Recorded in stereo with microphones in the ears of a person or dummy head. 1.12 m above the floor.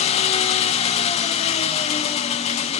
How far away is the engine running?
About 0.9 m.